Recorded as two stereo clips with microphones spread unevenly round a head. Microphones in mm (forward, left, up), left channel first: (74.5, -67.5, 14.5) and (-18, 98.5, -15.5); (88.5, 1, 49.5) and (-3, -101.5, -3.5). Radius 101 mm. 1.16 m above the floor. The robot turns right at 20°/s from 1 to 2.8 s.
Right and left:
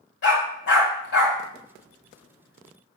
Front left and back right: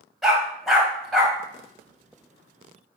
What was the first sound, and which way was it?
A dog barking, 35° right.